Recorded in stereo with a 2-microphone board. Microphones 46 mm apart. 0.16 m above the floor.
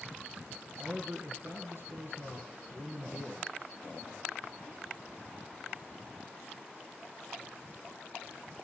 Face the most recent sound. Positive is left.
turn(degrees=-55)  # may be behind; listen again after turning